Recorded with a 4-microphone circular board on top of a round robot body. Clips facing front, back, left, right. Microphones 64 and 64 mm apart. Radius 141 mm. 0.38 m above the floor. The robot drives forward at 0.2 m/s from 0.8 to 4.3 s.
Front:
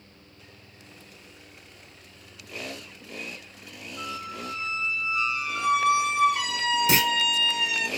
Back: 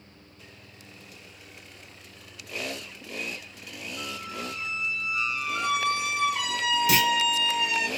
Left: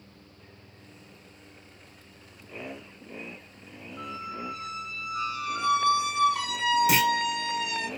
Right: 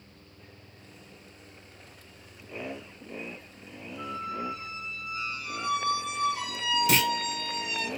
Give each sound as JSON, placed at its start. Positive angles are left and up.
{"t": 4.0, "sound": "a squeak", "azimuth_deg": 85, "distance_m": 0.5}
{"t": 6.9, "sound": "a clunk", "azimuth_deg": 15, "distance_m": 0.7}